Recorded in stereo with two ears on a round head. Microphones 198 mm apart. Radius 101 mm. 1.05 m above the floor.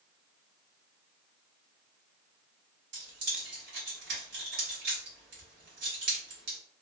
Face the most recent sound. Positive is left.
turn(degrees=-50)  # may be behind; listen again after turning